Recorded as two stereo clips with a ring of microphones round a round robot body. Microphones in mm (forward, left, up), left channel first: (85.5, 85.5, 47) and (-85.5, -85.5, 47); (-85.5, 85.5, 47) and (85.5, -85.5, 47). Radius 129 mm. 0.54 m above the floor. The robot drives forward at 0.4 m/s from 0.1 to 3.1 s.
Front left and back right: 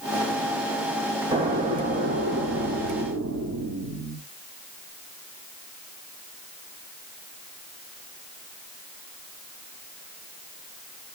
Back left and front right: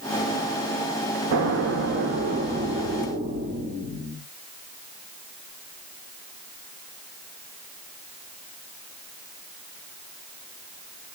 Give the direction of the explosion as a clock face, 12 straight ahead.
2 o'clock.